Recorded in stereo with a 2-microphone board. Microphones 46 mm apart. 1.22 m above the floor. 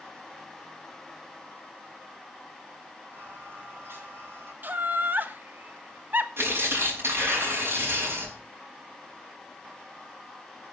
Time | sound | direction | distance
3.1 | singing | 60° right (ahead or behind) | 8 m
4.6 | laughter | 45° right (ahead or behind) | 1.1 m
6.4 | tearing paper | 60° right (ahead or behind) | 7.5 m